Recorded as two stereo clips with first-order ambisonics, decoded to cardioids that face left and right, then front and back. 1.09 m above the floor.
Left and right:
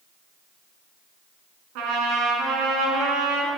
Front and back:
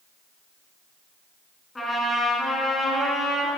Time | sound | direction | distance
1.8 | a trumpet | 80° right | 3.5 m